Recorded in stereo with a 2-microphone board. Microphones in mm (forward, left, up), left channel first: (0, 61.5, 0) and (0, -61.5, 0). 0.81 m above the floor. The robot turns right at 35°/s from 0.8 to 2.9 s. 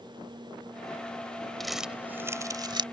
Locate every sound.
1.6 s crumpling: 5° left (ahead or behind); by 2.8 s 40° right (ahead or behind)